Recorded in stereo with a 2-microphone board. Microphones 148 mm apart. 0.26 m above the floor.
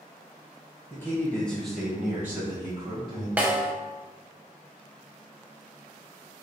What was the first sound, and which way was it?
A man speaking, 20° left (ahead or behind).